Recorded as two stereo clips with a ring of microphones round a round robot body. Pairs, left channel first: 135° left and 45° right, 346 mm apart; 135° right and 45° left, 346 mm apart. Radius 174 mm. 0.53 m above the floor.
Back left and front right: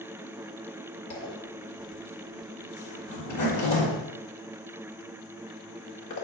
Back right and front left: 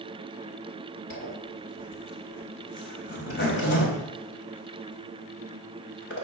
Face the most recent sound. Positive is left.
turn(degrees=170)